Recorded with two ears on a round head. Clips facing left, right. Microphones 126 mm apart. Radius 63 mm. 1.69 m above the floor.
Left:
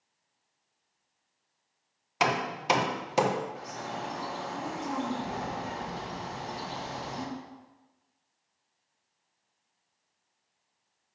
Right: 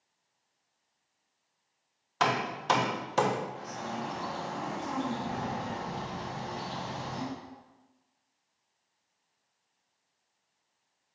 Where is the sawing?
No sawing in this recording.